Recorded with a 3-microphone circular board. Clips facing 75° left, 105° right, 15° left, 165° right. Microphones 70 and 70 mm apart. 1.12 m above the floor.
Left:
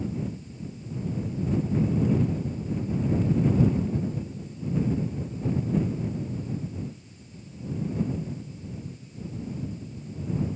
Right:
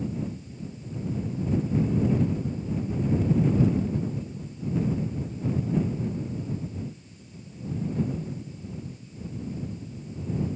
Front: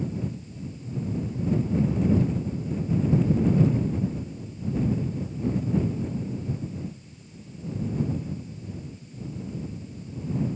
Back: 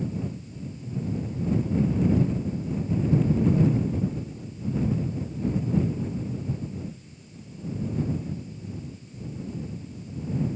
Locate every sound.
Only background noise.